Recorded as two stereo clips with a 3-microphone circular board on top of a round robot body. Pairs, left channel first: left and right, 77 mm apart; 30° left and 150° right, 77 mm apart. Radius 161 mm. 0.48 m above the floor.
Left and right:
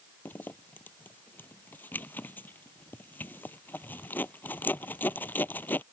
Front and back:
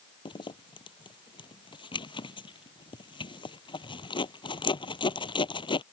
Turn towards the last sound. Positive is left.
turn(degrees=25)